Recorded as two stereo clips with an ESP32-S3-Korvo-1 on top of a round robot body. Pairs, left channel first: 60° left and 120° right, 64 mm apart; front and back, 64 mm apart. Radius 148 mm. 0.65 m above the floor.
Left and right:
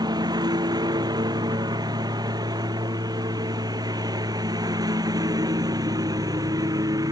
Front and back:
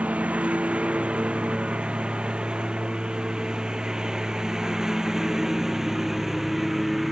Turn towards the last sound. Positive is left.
turn(degrees=-95)